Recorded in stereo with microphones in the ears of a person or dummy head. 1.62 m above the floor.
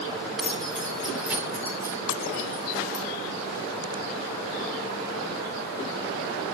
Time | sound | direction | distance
0.4 | keys jangling | centre (ahead or behind) | 3 m